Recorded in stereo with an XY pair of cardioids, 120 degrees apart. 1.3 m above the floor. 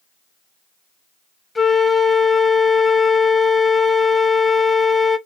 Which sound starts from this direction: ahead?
A flute, at 1.6 s.